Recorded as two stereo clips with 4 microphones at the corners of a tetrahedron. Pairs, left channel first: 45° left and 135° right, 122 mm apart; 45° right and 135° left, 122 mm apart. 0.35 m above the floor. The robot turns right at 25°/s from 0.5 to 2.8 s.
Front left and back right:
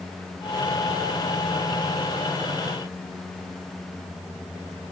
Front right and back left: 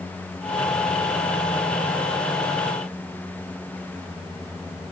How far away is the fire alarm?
No fire alarm in this recording.